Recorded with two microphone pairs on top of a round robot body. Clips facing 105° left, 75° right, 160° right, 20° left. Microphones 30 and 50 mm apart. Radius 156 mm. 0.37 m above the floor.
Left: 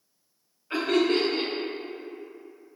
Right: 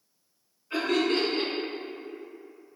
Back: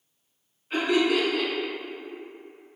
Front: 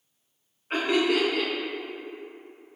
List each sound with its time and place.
0.7 s laughter: 60° left, 1.6 m